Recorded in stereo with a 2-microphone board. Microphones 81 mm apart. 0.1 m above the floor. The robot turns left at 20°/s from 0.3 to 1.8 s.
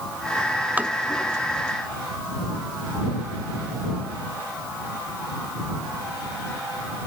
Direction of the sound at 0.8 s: 20° right (ahead or behind).